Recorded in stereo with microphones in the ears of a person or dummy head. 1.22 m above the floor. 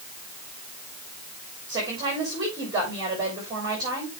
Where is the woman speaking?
20° right (ahead or behind), 6 m.